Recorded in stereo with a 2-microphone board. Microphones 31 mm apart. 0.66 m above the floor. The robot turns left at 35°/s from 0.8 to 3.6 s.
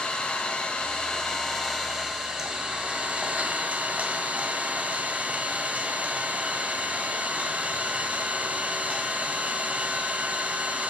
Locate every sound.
0.0 s an engine running: 35° left, 1.4 m; by 10.9 s 65° right, 1.4 m